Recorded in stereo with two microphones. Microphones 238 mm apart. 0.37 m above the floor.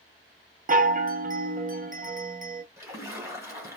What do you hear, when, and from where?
0.7 s a chime: 35° right (ahead or behind), 0.5 m
2.8 s a splash: 10° right (ahead or behind), 1.6 m